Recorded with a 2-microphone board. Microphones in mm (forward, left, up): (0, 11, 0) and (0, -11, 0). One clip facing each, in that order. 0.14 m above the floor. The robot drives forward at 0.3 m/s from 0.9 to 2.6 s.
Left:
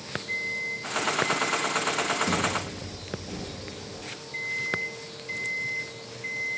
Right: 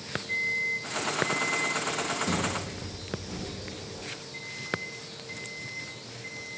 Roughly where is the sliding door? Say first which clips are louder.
Left 3 dB; left.